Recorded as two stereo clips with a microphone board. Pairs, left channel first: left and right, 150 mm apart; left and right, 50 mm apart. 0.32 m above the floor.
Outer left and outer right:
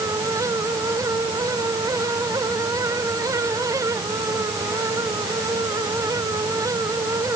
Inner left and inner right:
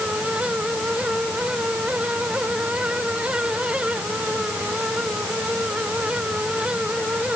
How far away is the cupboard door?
No cupboard door in this recording.